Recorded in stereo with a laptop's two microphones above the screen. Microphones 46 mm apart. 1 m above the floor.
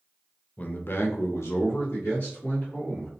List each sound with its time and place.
0.6 s a man speaking: 35° left (ahead or behind), 0.5 m; by 3.1 s 55° left (ahead or behind), 1.5 m